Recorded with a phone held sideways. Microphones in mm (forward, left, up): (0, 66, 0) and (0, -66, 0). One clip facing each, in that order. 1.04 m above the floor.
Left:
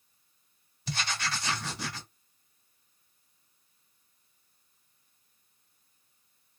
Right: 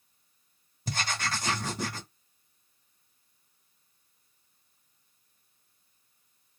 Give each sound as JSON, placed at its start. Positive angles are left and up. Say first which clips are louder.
{"t": 0.9, "sound": "writing", "louder": "right 2 dB", "side_deg": -45, "distance_m": 1.0}